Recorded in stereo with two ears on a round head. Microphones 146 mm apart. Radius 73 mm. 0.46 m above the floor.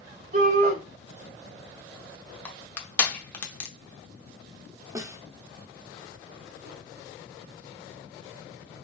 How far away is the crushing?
About 0.9 m.